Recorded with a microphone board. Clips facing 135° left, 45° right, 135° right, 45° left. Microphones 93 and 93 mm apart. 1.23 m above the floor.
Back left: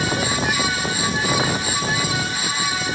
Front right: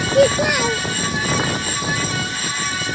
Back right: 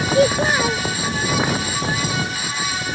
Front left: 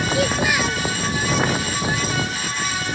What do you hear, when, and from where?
0.1 s a child speaking: 75° right